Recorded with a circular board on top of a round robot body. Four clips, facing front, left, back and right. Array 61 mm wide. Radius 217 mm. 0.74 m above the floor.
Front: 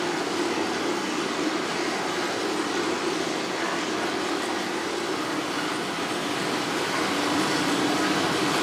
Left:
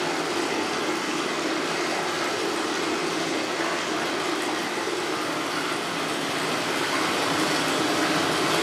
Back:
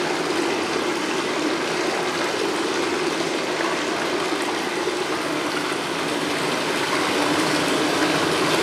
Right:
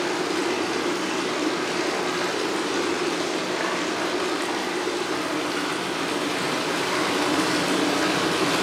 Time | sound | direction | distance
0.0 | running water | 170° right | 3.5 m